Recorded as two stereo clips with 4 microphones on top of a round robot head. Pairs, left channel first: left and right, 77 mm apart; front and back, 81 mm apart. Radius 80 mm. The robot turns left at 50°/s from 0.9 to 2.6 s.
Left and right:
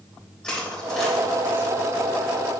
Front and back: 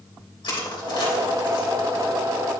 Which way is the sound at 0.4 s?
10° left.